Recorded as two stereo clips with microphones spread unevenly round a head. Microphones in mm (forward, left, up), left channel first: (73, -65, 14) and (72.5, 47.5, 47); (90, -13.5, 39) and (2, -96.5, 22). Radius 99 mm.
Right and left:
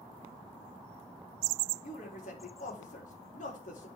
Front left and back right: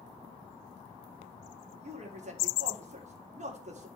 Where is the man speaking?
120° right, 3.5 m.